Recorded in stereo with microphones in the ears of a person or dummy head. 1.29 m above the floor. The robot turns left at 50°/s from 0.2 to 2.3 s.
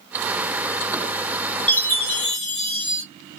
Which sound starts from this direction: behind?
A chime, at 1.7 s.